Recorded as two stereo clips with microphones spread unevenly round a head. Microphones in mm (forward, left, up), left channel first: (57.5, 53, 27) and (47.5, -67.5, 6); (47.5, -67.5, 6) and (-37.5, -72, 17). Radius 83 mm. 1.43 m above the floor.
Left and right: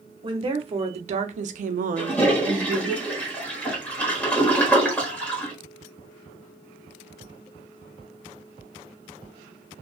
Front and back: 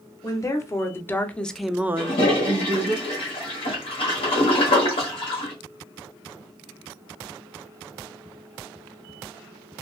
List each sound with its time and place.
0.2 s a woman speaking: 50° right, 1.2 m; by 3.0 s 165° right, 0.7 m
2.0 s a toilet flushing: 15° left, 1.2 m